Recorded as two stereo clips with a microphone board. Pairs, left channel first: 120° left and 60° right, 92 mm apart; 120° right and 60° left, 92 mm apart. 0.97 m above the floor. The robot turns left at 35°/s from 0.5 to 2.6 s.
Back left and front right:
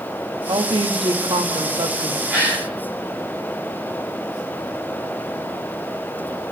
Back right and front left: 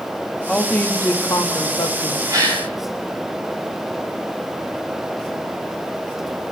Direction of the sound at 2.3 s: 15° left.